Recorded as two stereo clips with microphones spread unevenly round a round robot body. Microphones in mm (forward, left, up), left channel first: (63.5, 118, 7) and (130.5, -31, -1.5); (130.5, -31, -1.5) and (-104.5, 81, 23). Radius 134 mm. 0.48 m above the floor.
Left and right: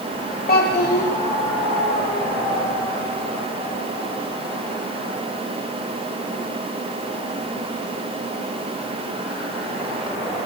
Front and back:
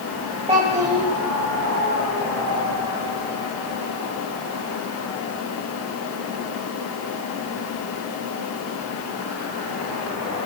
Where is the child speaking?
85° left, 2.5 m.